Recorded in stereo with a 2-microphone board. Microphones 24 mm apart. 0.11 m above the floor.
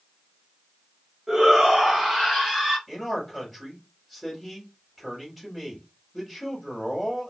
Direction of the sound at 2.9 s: Centre (ahead or behind).